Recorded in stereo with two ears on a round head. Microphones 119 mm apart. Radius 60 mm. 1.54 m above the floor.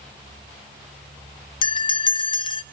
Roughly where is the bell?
Left.